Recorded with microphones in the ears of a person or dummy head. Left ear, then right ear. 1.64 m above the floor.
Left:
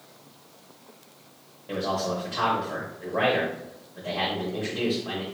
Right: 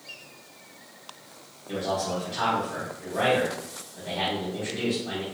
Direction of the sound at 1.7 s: 30° left (ahead or behind).